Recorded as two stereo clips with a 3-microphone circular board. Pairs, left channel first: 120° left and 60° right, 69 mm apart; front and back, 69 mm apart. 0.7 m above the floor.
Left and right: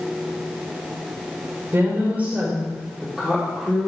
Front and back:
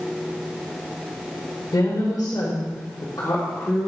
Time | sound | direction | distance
1.7 | a woman speaking | 15° right | 1.9 m